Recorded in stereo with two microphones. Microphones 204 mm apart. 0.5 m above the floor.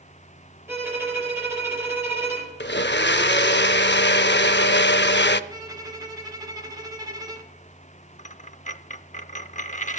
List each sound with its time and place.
0.7 s a violin: 10° right (ahead or behind), 4 m
2.6 s a blender: 65° left (ahead or behind), 0.5 m
5.5 s a violin: 20° right (ahead or behind), 1.4 m
8.2 s a dropped coin: 40° left (ahead or behind), 0.5 m